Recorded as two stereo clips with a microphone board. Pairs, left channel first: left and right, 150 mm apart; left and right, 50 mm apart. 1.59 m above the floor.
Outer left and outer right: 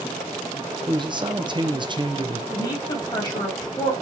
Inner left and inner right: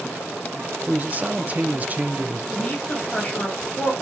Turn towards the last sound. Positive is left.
turn(degrees=25)  # may be behind; listen again after turning